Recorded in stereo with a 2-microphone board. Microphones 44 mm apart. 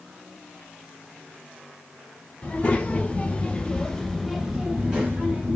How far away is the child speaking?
About 1.4 m.